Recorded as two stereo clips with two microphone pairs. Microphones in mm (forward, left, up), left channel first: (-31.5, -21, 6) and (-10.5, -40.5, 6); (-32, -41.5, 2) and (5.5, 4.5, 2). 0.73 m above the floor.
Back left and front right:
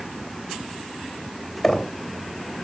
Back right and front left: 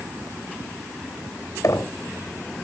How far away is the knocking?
About 3 m.